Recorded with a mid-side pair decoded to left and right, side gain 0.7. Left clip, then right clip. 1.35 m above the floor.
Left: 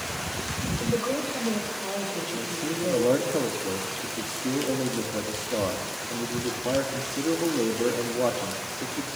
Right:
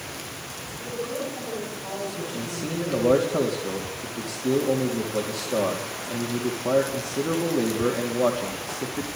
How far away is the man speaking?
About 2.5 m.